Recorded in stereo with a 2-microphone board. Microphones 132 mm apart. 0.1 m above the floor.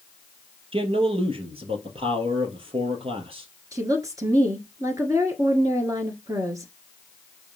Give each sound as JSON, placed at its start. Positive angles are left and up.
{"t": 0.7, "sound": "a man speaking", "side_deg": -40, "distance_m": 2.0}
{"t": 3.7, "sound": "a woman speaking", "side_deg": -25, "distance_m": 1.3}